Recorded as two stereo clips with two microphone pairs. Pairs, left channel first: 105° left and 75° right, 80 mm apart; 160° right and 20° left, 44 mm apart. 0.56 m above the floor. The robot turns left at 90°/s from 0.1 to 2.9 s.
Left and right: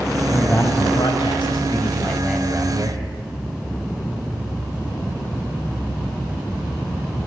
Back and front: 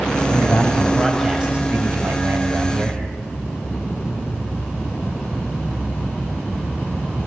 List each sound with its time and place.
0.3 s a man speaking: 170° right, 3.5 m; by 3.0 s 45° right, 3.5 m